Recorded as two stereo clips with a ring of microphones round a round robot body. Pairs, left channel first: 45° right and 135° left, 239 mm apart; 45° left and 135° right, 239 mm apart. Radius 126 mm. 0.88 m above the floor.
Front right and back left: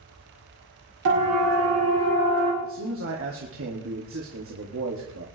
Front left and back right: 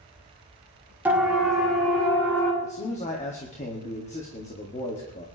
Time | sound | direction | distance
1.1 | a siren | 145° left | 3.5 m
2.6 | a man speaking | 105° left | 2 m